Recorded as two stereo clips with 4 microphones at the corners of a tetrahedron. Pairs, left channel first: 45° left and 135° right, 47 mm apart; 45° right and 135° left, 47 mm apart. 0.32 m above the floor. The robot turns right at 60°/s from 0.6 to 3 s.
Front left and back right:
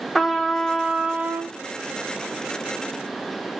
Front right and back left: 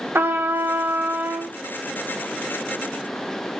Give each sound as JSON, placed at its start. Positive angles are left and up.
{"t": 0.1, "sound": "a trumpet", "azimuth_deg": 135, "distance_m": 0.5}